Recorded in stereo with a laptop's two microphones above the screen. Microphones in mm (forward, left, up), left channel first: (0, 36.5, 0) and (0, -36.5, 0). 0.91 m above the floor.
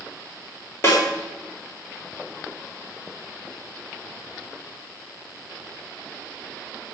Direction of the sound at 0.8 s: 35° left (ahead or behind).